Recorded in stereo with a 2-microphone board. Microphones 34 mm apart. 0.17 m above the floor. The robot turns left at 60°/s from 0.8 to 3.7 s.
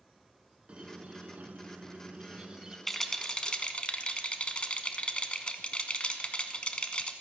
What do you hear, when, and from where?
0.7 s a squeak: 40° right, 0.6 m; by 2.8 s 160° right, 0.6 m
2.9 s a rattle: 175° left, 0.6 m; by 7.1 s 125° left, 0.6 m